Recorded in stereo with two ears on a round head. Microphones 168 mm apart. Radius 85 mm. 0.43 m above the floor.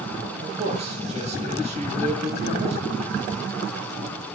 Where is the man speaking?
35° right (ahead or behind), 8.5 m.